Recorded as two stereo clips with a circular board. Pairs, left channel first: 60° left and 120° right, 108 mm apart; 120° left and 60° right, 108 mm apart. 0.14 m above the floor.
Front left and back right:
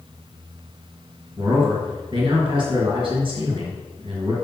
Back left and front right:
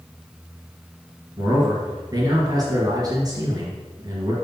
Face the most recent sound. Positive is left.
turn(degrees=-105)